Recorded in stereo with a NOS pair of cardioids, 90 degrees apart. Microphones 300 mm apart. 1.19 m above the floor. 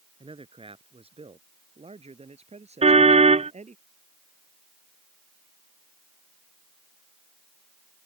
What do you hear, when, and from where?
0.2 s a man speaking: 15° right; by 3.8 s 20° right
2.8 s a car horn: 20° right